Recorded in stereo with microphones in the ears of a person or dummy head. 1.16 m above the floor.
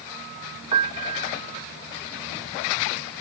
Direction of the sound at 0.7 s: 25° right (ahead or behind).